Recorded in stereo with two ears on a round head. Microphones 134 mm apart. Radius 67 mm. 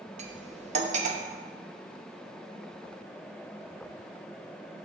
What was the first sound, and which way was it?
Cutlery clinking, 50° right (ahead or behind).